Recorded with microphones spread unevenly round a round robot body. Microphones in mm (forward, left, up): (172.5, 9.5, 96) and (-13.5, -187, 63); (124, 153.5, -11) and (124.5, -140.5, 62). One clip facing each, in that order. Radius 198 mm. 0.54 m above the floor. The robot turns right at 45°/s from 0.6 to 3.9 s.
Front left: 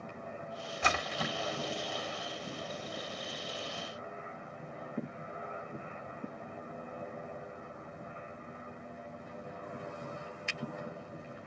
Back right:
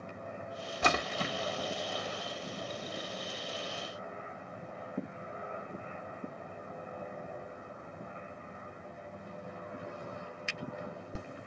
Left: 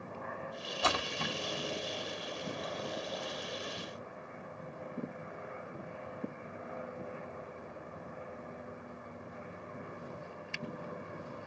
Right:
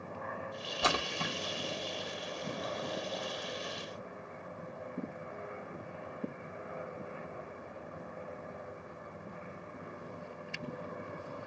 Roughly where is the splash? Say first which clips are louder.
Back right 3 dB, right 1 dB; right.